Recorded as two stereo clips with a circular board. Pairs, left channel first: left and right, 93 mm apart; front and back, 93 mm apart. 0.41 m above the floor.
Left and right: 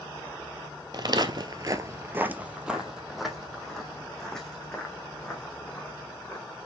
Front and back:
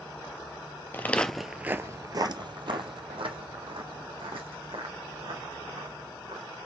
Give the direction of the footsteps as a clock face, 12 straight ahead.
2 o'clock.